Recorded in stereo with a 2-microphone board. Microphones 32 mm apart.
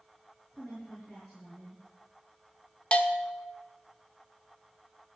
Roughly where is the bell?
Left.